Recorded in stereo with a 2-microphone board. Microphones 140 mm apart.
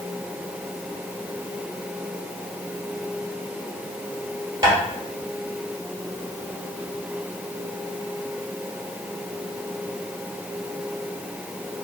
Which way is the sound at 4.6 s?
25° right (ahead or behind).